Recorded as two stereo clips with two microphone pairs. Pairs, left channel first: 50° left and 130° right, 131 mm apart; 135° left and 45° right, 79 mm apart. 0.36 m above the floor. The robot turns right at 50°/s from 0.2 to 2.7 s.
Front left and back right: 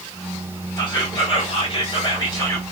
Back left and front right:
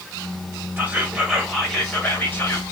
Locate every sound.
0.8 s whispering: 10° left, 1.4 m; by 2.6 s 100° left, 1.4 m